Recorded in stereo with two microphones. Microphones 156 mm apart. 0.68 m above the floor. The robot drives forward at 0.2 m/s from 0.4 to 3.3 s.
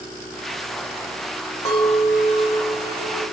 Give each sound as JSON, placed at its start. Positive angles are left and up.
{"t": 1.6, "sound": "a clink", "side_deg": 20, "distance_m": 2.0}